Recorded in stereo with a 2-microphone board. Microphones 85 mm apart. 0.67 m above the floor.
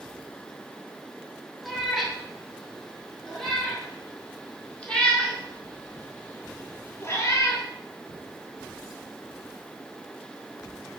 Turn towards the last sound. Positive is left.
turn(degrees=40)  # may be behind; listen again after turning